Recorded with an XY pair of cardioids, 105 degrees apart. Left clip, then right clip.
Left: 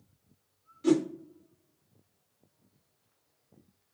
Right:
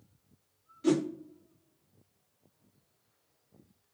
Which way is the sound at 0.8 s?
5° right.